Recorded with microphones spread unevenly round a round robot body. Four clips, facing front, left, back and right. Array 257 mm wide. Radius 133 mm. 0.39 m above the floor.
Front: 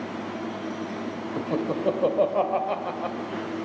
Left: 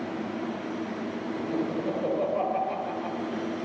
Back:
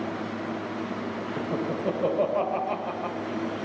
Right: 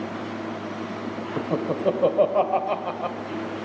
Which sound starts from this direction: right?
Laughter, at 1.4 s.